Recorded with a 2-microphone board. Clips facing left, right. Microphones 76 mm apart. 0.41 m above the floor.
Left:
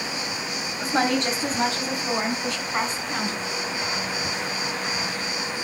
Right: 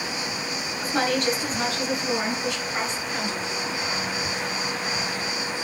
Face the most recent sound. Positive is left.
turn(degrees=40)  # may be behind; listen again after turning